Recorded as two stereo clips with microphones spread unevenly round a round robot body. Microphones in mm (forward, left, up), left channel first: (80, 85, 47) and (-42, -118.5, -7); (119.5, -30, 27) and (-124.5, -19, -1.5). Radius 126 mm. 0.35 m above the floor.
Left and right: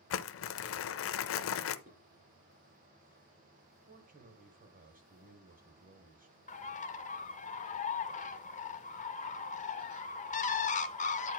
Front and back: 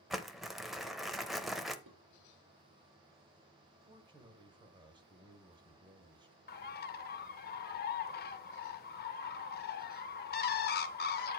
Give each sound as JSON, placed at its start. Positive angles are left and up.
{"t": 0.1, "sound": "crumpling", "azimuth_deg": 95, "distance_m": 0.6}
{"t": 1.9, "sound": "dishes clattering", "azimuth_deg": 180, "distance_m": 4.0}
{"t": 3.9, "sound": "a man speaking", "azimuth_deg": -125, "distance_m": 1.4}
{"t": 6.5, "sound": "a bird", "azimuth_deg": 5, "distance_m": 0.7}